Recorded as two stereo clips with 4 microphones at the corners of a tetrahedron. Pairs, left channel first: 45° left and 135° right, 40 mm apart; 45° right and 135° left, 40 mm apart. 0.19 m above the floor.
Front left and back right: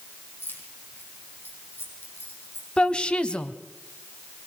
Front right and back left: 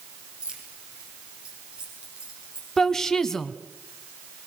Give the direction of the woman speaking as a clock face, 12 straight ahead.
11 o'clock.